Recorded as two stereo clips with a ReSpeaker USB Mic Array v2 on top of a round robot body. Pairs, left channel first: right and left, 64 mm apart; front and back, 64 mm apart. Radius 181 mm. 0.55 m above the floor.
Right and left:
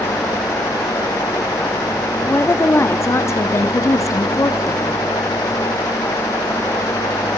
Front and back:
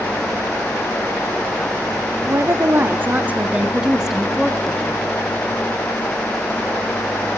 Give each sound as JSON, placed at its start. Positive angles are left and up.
{"t": 2.2, "sound": "a woman speaking", "azimuth_deg": -140, "distance_m": 2.0}